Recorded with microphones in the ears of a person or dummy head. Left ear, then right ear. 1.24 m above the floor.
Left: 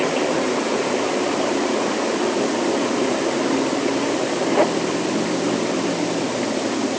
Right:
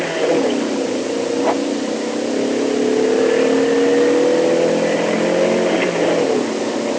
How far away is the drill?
No drill in this recording.